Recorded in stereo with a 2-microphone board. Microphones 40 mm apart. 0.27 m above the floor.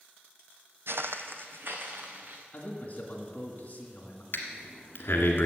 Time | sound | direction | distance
0.9 | footsteps | 70° right (ahead or behind) | 0.6 m
2.5 | a man speaking | 35° left (ahead or behind) | 2 m
4.3 | breathing | 60° left (ahead or behind) | 1.5 m